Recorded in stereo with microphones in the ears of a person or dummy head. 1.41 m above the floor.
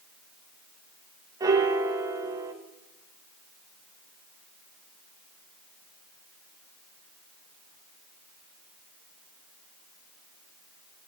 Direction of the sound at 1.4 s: 20° right (ahead or behind).